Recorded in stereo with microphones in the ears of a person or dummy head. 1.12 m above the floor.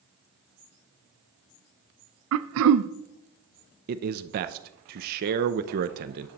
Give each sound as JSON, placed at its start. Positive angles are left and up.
{"t": 2.3, "sound": "throat clearing", "side_deg": -75, "distance_m": 0.5}
{"t": 3.9, "sound": "a man speaking", "side_deg": -45, "distance_m": 0.6}